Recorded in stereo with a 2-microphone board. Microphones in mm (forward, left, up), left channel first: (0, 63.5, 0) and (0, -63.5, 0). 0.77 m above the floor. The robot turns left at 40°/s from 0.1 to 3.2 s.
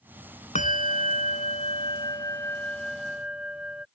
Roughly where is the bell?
Left.